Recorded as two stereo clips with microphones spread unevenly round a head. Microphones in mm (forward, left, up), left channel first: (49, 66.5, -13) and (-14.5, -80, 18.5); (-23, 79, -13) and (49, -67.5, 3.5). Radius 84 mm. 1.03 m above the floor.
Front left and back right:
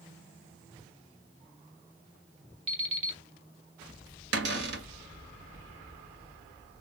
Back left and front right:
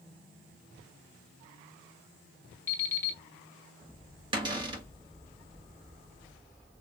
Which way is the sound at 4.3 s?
125° right.